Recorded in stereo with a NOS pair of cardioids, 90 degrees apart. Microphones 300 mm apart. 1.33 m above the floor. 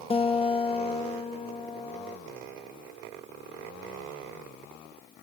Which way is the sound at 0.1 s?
20° left.